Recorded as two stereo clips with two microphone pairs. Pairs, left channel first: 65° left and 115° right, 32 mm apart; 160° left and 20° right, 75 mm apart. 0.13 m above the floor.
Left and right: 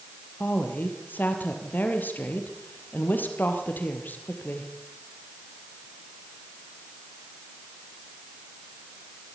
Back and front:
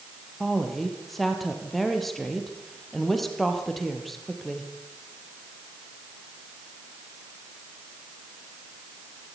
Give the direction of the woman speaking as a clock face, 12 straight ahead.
10 o'clock.